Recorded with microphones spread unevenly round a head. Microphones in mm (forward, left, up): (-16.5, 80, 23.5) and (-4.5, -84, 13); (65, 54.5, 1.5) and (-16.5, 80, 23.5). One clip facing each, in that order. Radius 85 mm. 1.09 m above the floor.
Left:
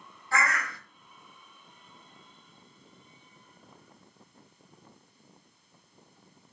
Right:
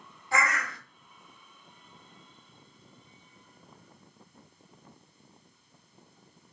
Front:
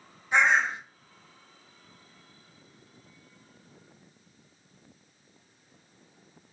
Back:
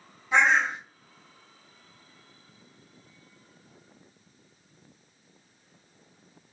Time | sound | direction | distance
0.3 | a bird | 160° right | 2.5 m